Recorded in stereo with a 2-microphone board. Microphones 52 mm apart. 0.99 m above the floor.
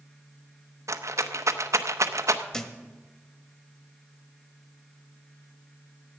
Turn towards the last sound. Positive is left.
turn(degrees=10)  # may be behind; listen again after turning